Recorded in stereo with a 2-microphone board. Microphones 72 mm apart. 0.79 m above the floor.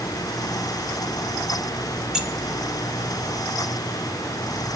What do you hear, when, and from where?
2.1 s keys jangling: 10° right (ahead or behind), 1.7 m